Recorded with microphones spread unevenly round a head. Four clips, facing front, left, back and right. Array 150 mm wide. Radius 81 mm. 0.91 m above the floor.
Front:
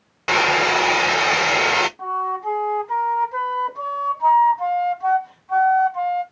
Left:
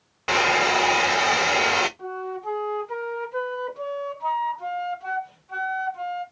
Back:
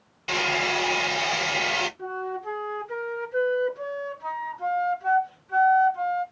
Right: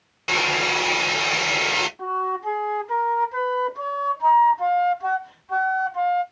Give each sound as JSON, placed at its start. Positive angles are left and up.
{"t": 0.3, "sound": "a hair dryer", "azimuth_deg": 15, "distance_m": 0.7}
{"t": 2.0, "sound": "a flute", "azimuth_deg": -30, "distance_m": 1.4}